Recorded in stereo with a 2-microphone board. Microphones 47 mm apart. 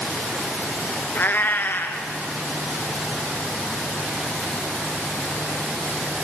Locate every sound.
1.1 s a cat meowing: 50° left (ahead or behind), 0.8 m